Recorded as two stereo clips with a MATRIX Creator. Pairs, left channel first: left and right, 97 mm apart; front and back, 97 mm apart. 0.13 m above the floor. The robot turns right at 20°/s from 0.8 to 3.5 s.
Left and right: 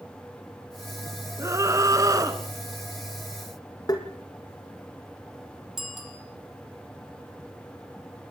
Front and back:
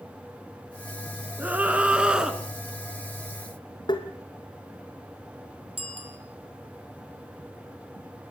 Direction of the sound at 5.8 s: 175° right.